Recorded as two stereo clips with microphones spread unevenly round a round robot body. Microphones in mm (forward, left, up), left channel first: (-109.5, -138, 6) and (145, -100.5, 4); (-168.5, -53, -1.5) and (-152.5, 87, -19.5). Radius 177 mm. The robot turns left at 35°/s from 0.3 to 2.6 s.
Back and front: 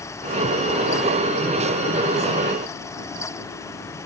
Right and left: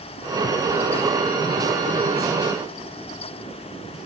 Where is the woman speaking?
No woman speaking in this recording.